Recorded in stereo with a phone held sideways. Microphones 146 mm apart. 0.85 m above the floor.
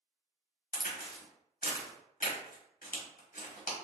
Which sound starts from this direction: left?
A crack, at 0.7 s.